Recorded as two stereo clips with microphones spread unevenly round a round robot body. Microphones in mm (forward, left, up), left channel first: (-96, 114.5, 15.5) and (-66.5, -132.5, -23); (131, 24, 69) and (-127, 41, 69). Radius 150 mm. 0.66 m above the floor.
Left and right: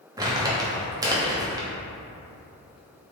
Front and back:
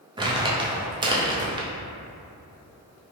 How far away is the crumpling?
About 0.6 m.